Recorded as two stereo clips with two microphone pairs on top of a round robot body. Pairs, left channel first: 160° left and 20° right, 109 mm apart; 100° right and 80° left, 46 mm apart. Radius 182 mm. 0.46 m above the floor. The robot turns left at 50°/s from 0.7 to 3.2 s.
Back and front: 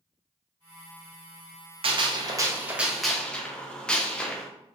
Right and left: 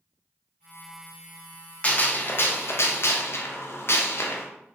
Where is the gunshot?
50° right, 0.6 m; by 4.5 s 120° right, 0.6 m.